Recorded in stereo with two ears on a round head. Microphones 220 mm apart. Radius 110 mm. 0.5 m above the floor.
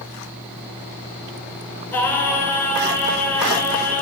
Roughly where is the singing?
Centre.